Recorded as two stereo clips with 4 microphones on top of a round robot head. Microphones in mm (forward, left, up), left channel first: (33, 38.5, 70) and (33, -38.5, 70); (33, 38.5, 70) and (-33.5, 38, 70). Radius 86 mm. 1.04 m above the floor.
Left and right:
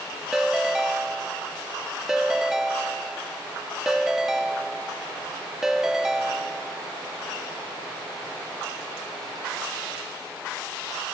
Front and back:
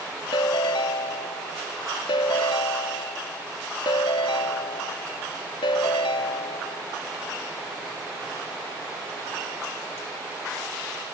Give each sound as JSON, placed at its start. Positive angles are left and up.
{"t": 0.3, "sound": "a ringtone", "azimuth_deg": -5}